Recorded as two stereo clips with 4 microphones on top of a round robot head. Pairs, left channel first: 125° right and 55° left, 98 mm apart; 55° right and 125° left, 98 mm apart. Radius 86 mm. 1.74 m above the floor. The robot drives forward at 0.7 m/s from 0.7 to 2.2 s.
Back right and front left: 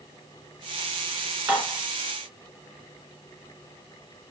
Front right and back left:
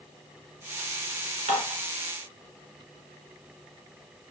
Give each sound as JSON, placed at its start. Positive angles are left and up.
{"t": 1.5, "sound": "dishes clattering", "azimuth_deg": 130, "distance_m": 4.5}